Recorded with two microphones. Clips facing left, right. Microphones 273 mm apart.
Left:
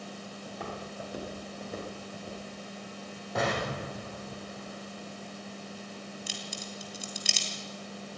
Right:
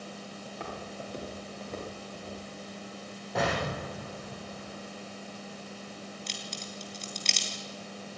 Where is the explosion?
Centre (ahead or behind), 9.5 m.